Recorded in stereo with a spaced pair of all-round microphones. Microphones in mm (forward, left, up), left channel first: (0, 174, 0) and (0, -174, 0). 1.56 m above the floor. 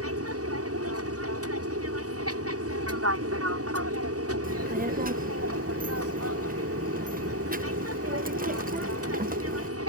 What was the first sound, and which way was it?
An aircraft, 40° right (ahead or behind).